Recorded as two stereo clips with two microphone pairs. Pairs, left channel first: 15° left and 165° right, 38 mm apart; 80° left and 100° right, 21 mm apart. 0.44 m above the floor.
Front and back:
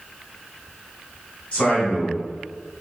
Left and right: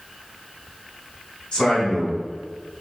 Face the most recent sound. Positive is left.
turn(degrees=65)